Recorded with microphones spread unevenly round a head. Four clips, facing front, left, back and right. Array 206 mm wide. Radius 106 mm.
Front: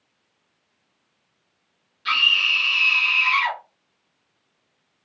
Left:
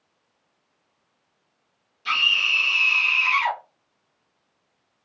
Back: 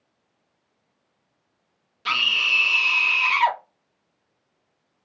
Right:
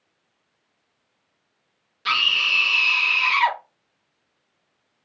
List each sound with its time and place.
2.0 s a scream: 150° right, 0.5 m